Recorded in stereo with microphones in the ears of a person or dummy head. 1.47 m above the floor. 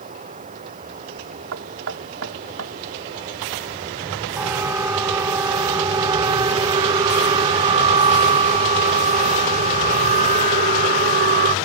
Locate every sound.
0.0 s running water: 35° right (ahead or behind)
1.5 s knocking: 65° right (ahead or behind)
4.4 s a siren: 10° right (ahead or behind); by 11.5 s 40° right (ahead or behind)